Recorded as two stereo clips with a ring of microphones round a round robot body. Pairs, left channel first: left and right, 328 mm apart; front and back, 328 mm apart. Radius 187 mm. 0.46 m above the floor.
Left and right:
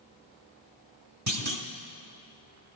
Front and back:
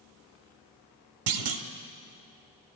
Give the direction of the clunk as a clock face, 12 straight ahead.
5 o'clock.